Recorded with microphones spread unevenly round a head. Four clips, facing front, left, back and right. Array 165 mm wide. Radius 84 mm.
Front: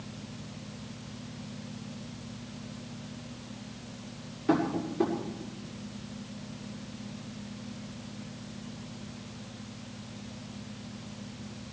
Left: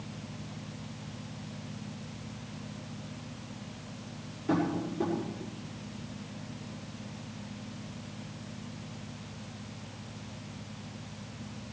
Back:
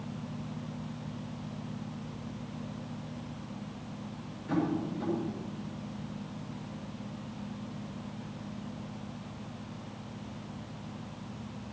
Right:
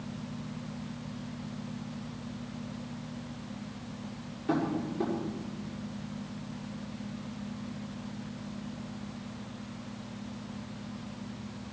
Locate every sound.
4.5 s tapping: 5° right, 5.5 m